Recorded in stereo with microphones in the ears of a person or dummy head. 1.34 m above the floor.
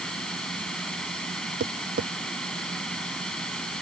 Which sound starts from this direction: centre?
A fan, at 0.0 s.